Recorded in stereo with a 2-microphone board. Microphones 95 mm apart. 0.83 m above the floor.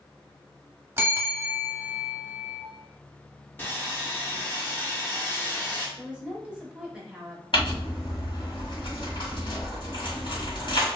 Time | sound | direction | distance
1.0 | a bell | 25° right (ahead or behind) | 0.7 m
3.6 | sawing | 20° left (ahead or behind) | 0.7 m
6.0 | a woman speaking | 15° right (ahead or behind) | 0.9 m
7.5 | crumpling | 60° left (ahead or behind) | 1.7 m